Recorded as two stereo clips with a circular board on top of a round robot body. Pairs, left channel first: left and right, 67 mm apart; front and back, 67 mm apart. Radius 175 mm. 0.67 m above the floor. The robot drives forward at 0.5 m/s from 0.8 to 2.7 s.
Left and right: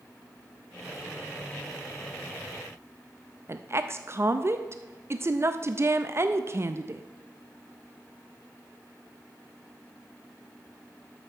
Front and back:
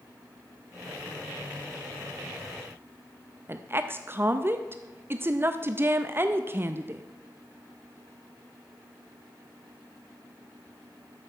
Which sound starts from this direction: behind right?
A woman speaking, at 3.5 s.